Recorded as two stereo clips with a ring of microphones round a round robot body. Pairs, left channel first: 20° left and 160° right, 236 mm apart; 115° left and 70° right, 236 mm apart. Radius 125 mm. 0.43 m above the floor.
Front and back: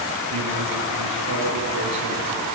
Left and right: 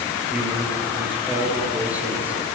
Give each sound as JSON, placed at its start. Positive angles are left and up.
{"t": 0.3, "sound": "a man speaking", "azimuth_deg": -150, "distance_m": 6.5}